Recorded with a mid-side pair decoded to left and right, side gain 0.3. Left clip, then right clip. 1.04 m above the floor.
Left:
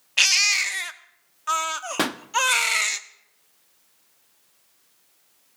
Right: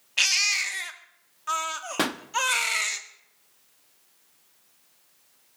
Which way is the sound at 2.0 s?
20° left.